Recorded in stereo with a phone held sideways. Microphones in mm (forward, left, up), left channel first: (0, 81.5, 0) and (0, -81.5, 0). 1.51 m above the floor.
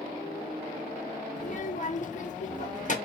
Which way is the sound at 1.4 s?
50° left (ahead or behind).